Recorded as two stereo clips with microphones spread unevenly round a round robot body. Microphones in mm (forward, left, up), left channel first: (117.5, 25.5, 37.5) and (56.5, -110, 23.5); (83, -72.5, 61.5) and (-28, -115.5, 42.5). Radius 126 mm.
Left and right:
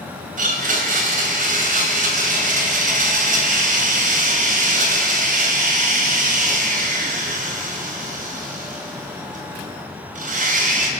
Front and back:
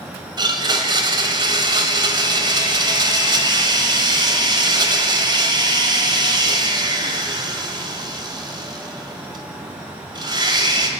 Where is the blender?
120° right, 2.5 m.